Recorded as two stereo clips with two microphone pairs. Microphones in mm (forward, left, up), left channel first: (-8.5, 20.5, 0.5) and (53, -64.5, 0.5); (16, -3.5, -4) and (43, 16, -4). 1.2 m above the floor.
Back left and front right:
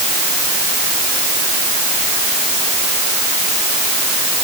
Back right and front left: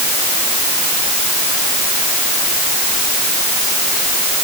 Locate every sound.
Only background noise.